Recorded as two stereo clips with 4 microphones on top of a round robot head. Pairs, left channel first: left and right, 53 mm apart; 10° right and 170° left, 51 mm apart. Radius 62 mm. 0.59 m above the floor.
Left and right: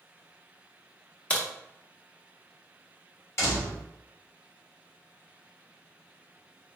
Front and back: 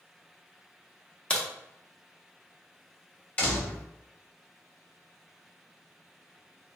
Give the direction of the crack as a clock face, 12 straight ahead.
11 o'clock.